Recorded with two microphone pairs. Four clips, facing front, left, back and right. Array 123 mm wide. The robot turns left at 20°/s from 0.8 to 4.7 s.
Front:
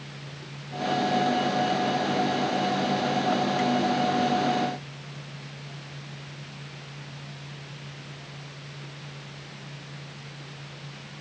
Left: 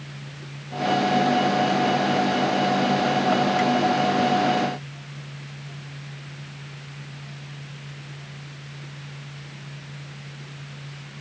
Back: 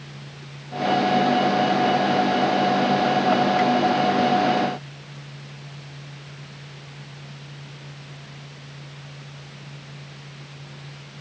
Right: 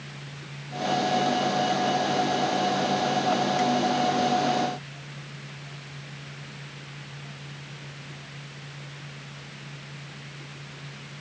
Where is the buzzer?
No buzzer in this recording.